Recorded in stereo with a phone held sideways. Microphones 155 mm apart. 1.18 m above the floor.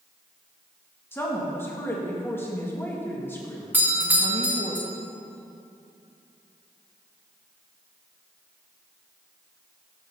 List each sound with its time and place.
1.1 s a woman speaking: 15° left (ahead or behind), 1.6 m
3.7 s a doorbell: 10° right (ahead or behind), 1.6 m